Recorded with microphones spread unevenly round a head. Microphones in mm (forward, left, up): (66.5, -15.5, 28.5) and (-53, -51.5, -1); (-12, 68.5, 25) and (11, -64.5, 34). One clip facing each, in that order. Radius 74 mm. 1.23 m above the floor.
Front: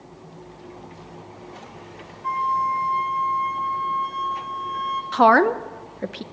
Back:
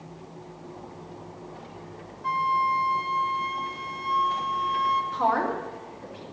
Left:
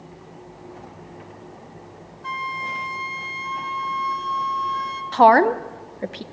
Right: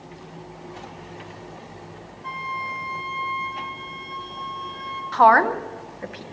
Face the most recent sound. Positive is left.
turn(degrees=45)